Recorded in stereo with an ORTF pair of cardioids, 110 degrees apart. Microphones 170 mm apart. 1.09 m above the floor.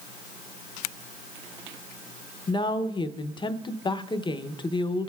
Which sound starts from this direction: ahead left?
A woman speaking, at 2.5 s.